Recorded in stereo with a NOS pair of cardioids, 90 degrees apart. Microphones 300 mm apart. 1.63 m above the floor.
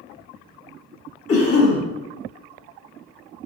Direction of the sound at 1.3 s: 50° left.